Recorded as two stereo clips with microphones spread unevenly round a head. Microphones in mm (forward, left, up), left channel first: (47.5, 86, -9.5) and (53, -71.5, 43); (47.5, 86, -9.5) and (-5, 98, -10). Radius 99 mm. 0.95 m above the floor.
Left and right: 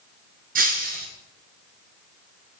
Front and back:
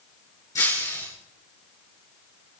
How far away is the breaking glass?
About 4.5 m.